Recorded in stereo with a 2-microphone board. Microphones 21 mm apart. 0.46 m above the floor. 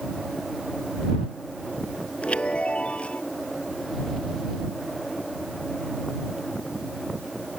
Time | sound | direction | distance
2.2 | a chime | 65° left (ahead or behind) | ?